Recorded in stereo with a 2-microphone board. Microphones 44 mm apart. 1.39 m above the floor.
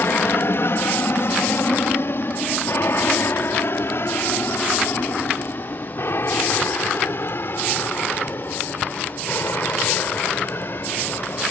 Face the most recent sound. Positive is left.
turn(degrees=60)  # may be behind; listen again after turning